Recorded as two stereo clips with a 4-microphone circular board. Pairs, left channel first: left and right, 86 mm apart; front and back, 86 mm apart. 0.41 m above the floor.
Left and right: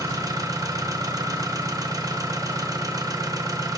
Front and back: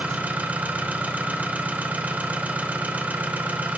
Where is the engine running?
115° right, 0.9 m.